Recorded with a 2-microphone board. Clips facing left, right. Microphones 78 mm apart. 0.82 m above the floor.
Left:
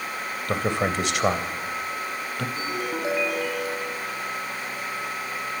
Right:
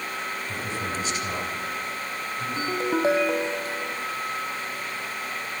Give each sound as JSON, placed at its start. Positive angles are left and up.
{"t": 0.5, "sound": "a man speaking", "side_deg": 70, "distance_m": 3.5}
{"t": 2.6, "sound": "a ringtone", "side_deg": -30, "distance_m": 3.0}